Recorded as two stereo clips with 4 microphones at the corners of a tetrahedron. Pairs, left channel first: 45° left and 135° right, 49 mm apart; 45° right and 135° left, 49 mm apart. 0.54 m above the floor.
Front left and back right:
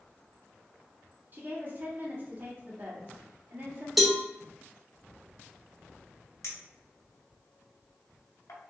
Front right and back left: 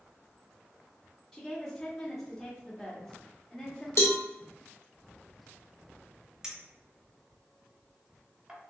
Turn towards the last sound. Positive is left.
turn(degrees=60)